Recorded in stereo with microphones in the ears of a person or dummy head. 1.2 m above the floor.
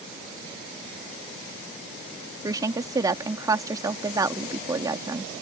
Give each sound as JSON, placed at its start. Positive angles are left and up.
{"t": 2.4, "sound": "a woman speaking", "side_deg": -10}